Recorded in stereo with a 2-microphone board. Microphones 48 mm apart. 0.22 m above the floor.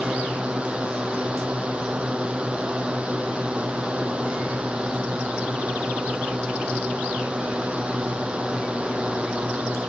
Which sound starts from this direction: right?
A drone, at 0.0 s.